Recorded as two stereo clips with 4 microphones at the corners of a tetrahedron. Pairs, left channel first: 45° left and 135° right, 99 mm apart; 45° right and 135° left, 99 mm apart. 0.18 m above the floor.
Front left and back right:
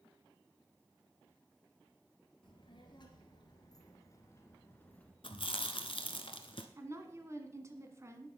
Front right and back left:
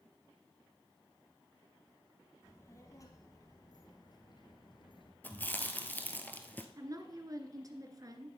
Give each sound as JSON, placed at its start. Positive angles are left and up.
{"t": 2.4, "sound": "a child speaking", "azimuth_deg": 15, "distance_m": 3.0}
{"t": 5.2, "sound": "chewing", "azimuth_deg": 25, "distance_m": 1.1}
{"t": 6.8, "sound": "a woman speaking", "azimuth_deg": 175, "distance_m": 1.6}